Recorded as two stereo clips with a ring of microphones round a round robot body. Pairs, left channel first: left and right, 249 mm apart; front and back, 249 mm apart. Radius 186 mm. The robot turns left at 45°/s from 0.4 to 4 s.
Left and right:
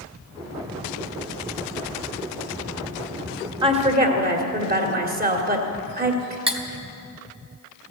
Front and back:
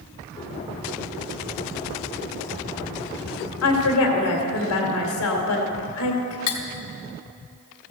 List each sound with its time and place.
3.6 s a woman speaking: 20° right, 2.0 m; by 6.4 s 35° right, 2.0 m
6.5 s cutlery clinking: 20° right, 1.5 m